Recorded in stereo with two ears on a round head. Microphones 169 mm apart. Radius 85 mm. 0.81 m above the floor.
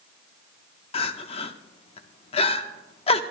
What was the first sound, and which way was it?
Crying, 30° left (ahead or behind).